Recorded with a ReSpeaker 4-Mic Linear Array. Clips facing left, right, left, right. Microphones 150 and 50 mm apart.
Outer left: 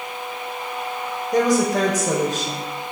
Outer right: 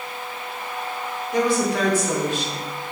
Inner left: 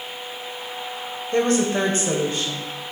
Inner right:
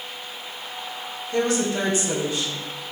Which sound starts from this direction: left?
A woman speaking, at 1.3 s.